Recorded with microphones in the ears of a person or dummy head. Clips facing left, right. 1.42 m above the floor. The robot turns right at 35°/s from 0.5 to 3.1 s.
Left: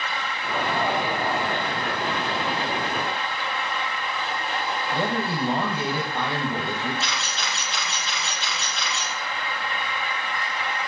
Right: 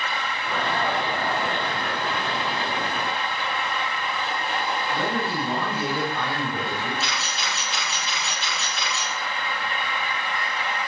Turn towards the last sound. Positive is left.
turn(degrees=-5)  # may be behind; listen again after turning